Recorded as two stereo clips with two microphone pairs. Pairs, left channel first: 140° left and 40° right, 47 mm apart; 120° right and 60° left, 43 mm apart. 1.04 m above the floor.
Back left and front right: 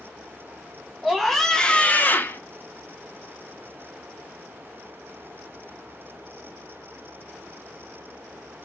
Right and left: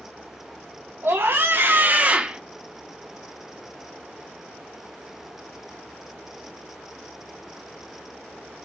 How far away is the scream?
About 1.2 m.